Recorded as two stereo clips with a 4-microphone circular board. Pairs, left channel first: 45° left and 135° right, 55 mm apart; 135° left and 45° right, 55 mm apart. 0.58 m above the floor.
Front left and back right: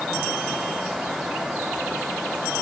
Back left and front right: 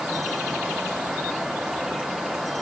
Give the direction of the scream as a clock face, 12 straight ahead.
No scream in this recording.